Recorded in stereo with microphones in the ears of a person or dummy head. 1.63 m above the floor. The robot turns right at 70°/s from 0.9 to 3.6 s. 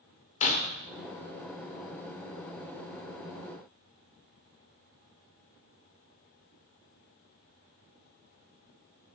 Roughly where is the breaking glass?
Left.